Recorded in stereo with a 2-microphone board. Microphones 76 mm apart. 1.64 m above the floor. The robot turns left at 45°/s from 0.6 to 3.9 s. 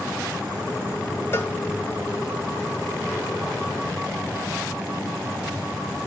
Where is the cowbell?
30° left (ahead or behind), 1.1 m; by 1.6 s 20° left (ahead or behind), 1.1 m.